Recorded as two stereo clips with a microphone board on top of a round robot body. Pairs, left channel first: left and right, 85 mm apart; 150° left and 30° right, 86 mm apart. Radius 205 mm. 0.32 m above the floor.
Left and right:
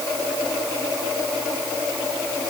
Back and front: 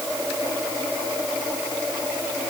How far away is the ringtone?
I don't hear a ringtone.